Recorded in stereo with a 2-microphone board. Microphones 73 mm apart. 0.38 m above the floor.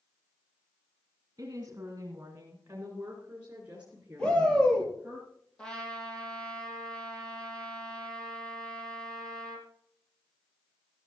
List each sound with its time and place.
1.4 s a woman speaking: 50° right (ahead or behind), 3 m; by 5.2 s 10° right (ahead or behind), 5.5 m
4.2 s a shout: 15° left (ahead or behind), 9 m
5.6 s a trumpet: 10° left (ahead or behind), 3.5 m